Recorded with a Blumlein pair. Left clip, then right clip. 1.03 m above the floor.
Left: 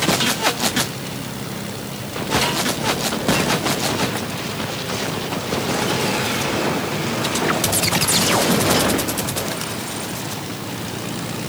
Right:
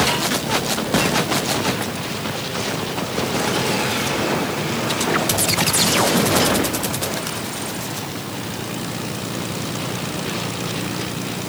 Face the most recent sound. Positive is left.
No sound to turn to.